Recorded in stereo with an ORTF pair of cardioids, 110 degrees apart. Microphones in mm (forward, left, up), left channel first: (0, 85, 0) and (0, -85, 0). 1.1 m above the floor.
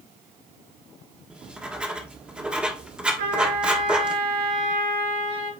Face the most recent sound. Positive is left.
turn(degrees=-70)